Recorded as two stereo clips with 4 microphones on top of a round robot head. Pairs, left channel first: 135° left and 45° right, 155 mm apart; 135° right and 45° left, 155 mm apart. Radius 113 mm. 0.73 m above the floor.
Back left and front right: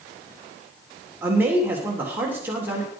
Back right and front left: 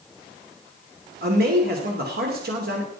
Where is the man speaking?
35° left, 3 m.